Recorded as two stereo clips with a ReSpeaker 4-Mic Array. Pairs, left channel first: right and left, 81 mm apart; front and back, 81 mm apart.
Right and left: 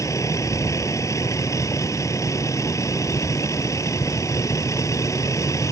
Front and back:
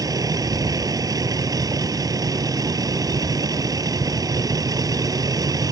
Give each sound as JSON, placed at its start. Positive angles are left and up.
{"t": 0.0, "sound": "a vehicle", "azimuth_deg": -140}